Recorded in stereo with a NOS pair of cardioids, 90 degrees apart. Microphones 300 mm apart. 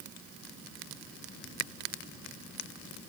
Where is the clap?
No clap in this recording.